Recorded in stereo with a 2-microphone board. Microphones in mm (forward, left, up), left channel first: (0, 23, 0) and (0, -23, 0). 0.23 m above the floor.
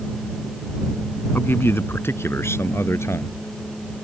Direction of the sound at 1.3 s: 50° left (ahead or behind).